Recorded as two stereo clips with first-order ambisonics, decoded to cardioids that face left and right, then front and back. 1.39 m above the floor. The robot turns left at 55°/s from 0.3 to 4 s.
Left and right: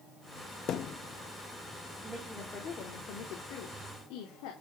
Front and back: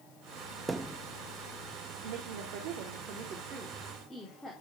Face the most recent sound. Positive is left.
turn(degrees=85)